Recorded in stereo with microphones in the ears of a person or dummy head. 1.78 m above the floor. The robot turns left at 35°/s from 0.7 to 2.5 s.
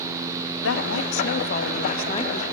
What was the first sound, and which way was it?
A woman speaking, 80° left.